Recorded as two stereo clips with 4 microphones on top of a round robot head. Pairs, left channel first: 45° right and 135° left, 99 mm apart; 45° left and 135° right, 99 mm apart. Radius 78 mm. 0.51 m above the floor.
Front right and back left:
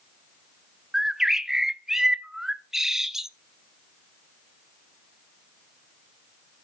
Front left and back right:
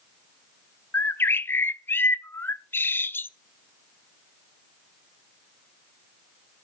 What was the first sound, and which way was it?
A bird, 60° left.